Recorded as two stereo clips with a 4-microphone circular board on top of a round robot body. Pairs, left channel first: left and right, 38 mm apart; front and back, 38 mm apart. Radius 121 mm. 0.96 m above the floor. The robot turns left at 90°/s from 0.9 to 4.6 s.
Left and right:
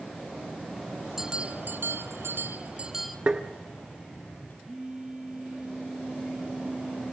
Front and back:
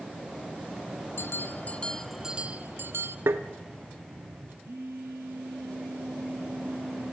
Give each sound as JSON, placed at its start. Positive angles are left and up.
{"t": 1.2, "sound": "a bell", "azimuth_deg": -5, "distance_m": 0.7}
{"t": 3.3, "sound": "tapping", "azimuth_deg": -155, "distance_m": 0.6}
{"t": 4.6, "sound": "a phone buzzing", "azimuth_deg": -170, "distance_m": 0.8}